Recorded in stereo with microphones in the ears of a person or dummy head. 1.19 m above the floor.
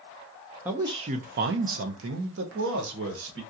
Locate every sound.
0.7 s a man speaking: 10° right (ahead or behind), 0.5 m; by 3.4 s 70° right (ahead or behind), 1.4 m